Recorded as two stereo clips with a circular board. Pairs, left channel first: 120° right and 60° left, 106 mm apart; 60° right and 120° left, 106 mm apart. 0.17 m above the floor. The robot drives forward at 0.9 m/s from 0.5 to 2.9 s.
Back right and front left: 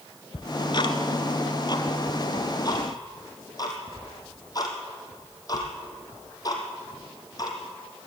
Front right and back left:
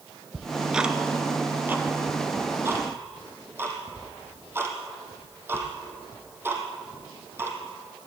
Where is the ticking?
150° right, 0.9 m; by 7.6 s 175° right, 3 m.